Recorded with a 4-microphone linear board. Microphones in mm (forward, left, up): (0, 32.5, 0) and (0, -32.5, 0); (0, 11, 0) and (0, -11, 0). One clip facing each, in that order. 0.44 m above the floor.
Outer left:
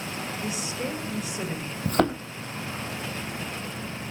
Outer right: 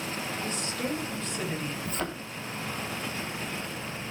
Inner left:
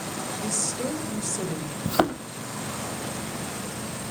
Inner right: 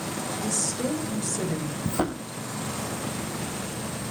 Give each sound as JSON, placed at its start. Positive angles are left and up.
{"t": 0.4, "sound": "a woman speaking", "side_deg": 10, "distance_m": 3.0}
{"t": 1.9, "sound": "a thud", "side_deg": 60, "distance_m": 1.8}